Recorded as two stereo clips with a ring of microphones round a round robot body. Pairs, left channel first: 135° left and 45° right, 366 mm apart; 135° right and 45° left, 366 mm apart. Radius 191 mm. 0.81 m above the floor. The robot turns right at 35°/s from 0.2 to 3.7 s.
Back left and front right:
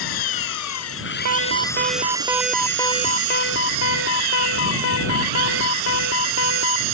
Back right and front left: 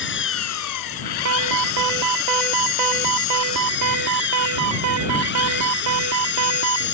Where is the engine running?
165° left; by 7.0 s 75° right.